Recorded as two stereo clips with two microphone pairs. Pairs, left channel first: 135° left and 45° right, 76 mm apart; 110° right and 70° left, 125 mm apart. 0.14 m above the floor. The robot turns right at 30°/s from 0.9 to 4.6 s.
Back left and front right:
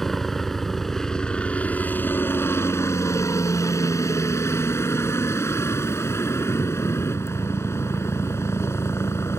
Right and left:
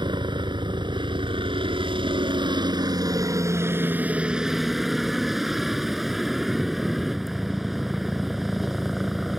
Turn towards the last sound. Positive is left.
turn(degrees=160)